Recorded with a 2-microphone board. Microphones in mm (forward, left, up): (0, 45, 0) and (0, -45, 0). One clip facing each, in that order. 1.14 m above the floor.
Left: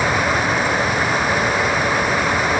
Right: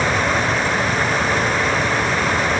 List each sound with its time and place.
Only background noise.